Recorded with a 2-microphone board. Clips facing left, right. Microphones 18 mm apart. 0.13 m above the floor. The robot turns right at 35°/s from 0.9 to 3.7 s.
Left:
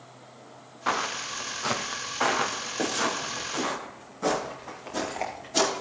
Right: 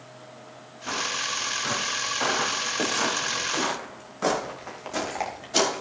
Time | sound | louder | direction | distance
0.9 | footsteps | even | 80° left | 1.6 m